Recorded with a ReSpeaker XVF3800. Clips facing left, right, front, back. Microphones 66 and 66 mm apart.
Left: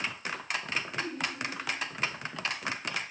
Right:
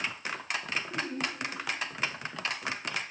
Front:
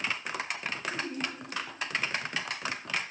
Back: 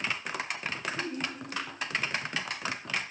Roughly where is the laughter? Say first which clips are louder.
Right 1 dB, back 1 dB; ahead right.